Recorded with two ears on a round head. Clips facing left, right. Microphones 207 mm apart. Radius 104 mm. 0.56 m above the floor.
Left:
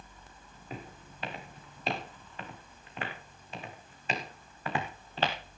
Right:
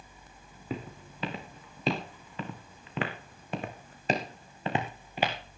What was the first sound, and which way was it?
Footsteps, 75° right (ahead or behind).